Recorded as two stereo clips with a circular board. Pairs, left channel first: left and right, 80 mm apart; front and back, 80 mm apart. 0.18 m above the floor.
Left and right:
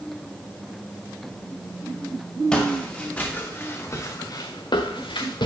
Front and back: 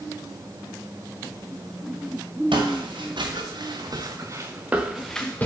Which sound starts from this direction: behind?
Footsteps, at 2.5 s.